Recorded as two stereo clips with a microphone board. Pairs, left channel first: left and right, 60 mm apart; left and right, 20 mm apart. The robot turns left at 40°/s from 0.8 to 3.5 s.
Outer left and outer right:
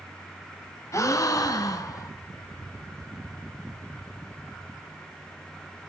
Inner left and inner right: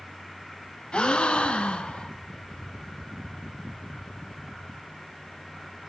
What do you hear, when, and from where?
0.9 s a gasp: 120° left, 0.6 m; by 2.1 s 75° left, 0.6 m